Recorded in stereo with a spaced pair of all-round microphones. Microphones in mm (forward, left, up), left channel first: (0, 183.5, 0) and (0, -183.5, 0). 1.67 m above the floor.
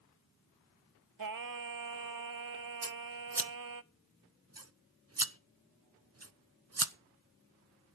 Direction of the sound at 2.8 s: 40° right (ahead or behind).